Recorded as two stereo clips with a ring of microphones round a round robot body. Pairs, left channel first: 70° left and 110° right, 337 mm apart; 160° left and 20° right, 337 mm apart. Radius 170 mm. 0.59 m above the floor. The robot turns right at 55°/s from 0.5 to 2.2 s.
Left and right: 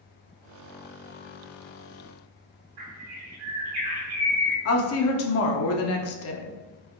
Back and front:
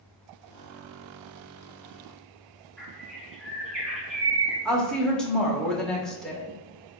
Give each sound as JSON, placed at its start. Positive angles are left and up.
{"t": 2.8, "sound": "a bird", "azimuth_deg": -110, "distance_m": 1.6}
{"t": 4.7, "sound": "a woman speaking", "azimuth_deg": 70, "distance_m": 0.7}